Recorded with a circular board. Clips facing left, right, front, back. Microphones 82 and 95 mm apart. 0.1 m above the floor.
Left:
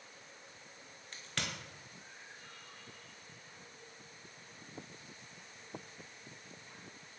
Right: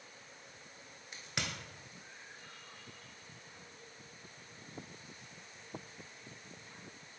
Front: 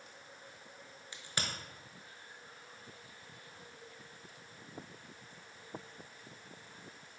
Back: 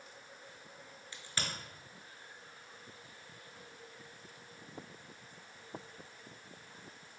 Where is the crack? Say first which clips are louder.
Right 1 dB, front 1 dB; 35° right, 0.7 m.